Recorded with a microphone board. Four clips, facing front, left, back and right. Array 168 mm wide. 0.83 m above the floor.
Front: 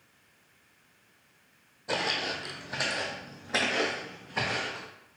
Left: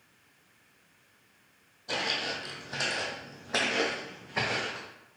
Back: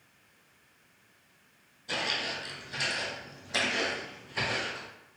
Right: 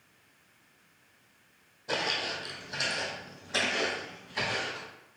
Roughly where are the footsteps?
Ahead.